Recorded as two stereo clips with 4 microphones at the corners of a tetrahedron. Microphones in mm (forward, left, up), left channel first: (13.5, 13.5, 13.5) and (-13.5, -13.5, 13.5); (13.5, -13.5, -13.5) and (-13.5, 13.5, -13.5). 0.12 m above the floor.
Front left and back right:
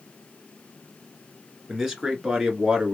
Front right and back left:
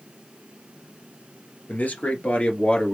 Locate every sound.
1.7 s a man speaking: 55° right, 1.9 m; by 2.9 s 85° right, 1.7 m